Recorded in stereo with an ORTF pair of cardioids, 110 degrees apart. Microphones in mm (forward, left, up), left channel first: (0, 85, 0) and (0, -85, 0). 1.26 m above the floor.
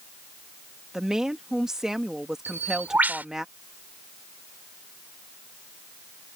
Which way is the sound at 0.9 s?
5° right.